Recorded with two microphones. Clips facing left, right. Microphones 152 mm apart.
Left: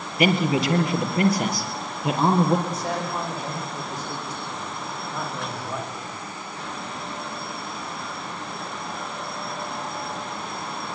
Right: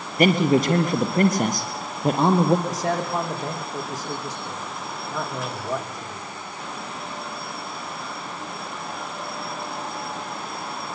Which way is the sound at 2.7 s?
80° right.